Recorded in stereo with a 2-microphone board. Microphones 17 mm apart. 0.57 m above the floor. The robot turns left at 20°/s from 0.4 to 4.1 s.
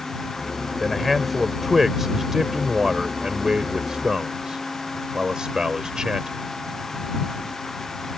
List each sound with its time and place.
0.8 s a man speaking: 5° left; by 6.3 s 60° right